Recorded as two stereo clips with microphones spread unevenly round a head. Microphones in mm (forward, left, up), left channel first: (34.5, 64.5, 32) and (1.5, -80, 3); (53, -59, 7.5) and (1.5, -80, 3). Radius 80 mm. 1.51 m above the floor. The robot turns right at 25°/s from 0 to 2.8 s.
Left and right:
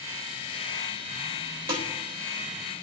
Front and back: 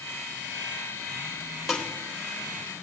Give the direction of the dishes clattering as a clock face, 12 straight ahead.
2 o'clock.